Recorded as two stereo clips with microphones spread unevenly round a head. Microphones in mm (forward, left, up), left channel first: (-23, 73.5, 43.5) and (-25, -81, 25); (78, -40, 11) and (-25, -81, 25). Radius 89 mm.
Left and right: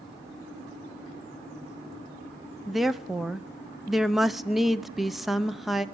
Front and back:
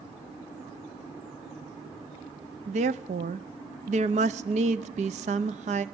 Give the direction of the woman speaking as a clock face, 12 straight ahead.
6 o'clock.